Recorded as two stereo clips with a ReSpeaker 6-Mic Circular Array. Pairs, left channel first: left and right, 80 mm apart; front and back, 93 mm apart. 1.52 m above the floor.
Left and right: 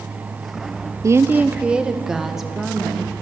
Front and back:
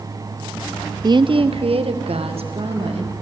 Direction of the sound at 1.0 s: 135° right.